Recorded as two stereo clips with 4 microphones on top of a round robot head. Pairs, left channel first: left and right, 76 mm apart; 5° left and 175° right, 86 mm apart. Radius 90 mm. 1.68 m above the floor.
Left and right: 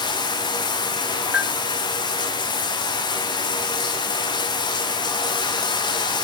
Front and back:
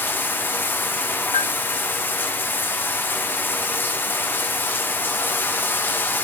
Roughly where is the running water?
Left.